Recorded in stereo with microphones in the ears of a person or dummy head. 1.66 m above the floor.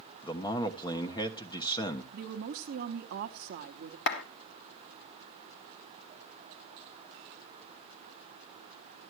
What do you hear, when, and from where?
0.2 s a man speaking: 15° left (ahead or behind), 1.2 m
2.1 s a woman speaking: 55° right (ahead or behind), 1.0 m
4.1 s a clap: 50° left (ahead or behind), 1.4 m